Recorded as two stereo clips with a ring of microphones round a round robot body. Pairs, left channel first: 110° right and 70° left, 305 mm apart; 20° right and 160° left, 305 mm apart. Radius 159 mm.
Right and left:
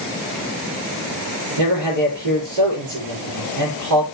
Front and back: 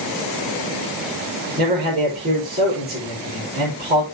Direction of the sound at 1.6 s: 95° left.